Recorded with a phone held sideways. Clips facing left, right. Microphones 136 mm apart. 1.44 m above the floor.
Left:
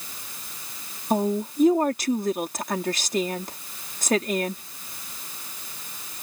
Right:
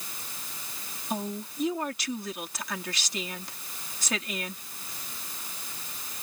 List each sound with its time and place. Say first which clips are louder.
1.1 s a woman speaking: left 10 dB; 50° left (ahead or behind)